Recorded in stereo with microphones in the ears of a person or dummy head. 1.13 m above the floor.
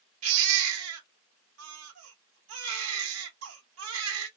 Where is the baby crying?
80° right, 1.3 m.